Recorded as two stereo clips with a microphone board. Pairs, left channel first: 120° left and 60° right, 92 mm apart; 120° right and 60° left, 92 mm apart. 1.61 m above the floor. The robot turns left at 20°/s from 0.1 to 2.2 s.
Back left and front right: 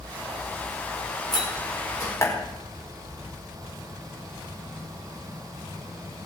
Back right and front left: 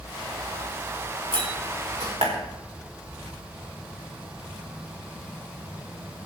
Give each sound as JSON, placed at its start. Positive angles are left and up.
{"t": 1.3, "sound": "a door slam", "azimuth_deg": 80, "distance_m": 4.5}